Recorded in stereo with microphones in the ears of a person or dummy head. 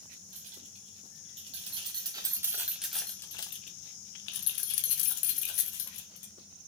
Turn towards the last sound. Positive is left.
turn(degrees=65)  # may be behind; listen again after turning